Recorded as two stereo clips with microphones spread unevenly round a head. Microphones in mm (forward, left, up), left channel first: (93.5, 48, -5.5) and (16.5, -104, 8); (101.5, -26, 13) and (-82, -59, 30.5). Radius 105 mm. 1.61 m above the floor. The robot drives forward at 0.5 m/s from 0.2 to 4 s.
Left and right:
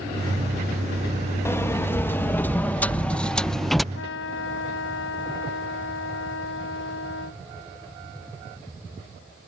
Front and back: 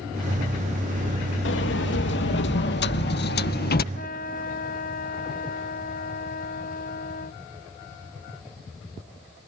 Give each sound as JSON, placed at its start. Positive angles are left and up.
{"t": 1.4, "sound": "a sliding door", "azimuth_deg": -15}
{"t": 3.9, "sound": "a trumpet", "azimuth_deg": 65}